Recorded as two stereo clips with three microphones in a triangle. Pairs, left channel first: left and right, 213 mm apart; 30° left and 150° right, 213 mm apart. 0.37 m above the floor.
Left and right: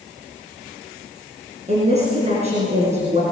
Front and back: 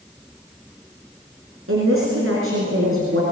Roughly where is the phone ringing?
No phone ringing in this recording.